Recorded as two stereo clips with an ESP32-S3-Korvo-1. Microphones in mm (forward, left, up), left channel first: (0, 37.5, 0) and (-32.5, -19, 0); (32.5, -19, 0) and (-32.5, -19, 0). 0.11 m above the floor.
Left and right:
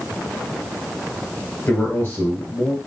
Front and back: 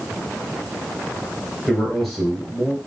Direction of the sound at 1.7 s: 85° left.